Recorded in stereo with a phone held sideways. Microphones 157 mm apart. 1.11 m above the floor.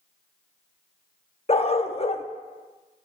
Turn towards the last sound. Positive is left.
turn(degrees=40)  # may be behind; listen again after turning